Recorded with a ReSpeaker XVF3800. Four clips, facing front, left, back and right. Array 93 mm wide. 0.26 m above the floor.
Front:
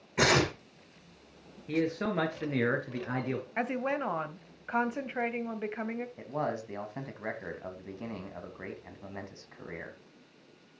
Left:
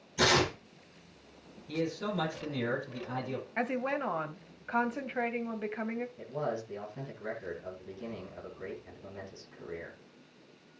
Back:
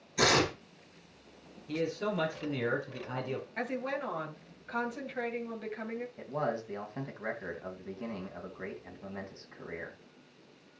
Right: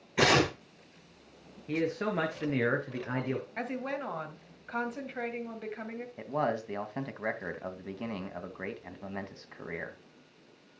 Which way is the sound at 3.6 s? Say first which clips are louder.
Left 3 dB, front 4 dB; 30° left.